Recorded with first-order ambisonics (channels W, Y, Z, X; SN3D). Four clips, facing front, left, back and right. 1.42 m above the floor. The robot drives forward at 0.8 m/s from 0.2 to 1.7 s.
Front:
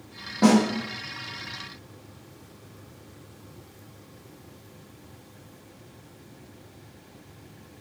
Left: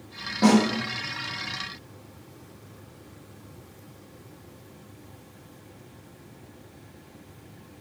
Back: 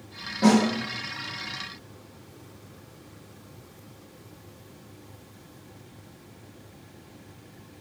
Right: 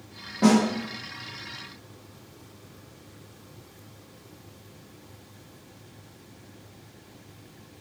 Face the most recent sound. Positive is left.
turn(degrees=175)